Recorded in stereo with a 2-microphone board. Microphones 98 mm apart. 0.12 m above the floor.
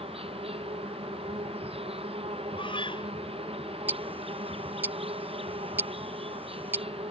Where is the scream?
60° left (ahead or behind).